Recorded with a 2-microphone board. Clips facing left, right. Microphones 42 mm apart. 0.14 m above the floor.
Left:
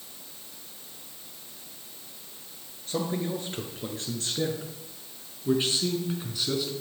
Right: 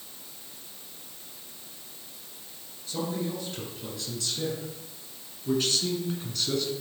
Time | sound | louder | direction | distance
2.9 | a man speaking | left 2 dB | 50° left (ahead or behind) | 3 m